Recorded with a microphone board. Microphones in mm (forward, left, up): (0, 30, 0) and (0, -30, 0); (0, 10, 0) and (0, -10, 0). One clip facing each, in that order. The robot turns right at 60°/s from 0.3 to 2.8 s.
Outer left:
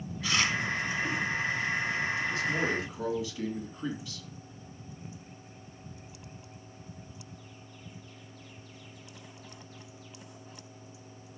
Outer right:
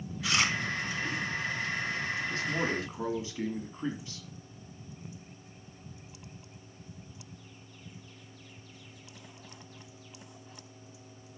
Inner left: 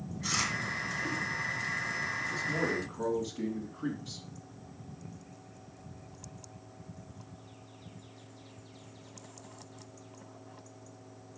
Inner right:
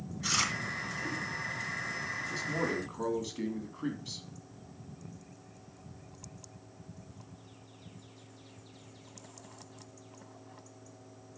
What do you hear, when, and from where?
0.2 s chewing: 5° right (ahead or behind), 2.5 m; by 0.5 s 15° right (ahead or behind), 2.5 m
2.3 s a man speaking: 75° right, 2.5 m; by 4.3 s 45° right, 2.5 m